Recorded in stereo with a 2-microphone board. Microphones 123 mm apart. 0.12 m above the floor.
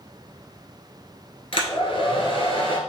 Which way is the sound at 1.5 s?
50° left (ahead or behind).